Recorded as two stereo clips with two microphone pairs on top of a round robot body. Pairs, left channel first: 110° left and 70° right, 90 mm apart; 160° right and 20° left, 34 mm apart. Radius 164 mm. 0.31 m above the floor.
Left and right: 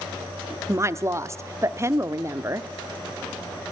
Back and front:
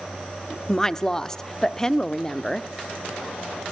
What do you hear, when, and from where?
0.7 s a woman speaking: 95° right, 1.0 m